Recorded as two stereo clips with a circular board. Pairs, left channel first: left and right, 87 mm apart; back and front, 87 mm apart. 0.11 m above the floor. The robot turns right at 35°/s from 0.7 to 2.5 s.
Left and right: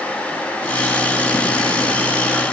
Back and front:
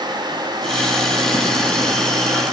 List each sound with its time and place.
Only background noise.